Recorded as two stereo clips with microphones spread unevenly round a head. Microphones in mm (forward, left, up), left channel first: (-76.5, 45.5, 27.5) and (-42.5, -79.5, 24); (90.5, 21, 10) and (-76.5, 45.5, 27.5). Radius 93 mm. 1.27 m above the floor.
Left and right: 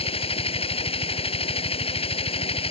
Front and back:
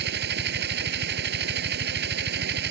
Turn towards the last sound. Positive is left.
turn(degrees=150)